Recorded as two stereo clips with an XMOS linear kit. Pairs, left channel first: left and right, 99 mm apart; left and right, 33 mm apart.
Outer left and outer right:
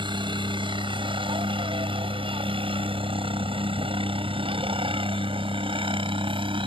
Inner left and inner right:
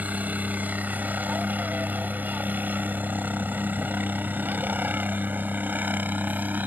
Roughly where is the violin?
I don't hear a violin.